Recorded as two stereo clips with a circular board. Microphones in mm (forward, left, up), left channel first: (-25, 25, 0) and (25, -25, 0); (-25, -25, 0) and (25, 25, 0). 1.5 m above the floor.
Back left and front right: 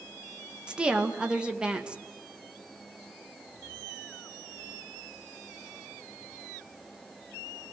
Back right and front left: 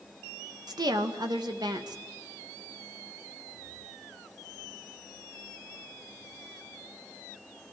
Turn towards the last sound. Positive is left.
turn(degrees=35)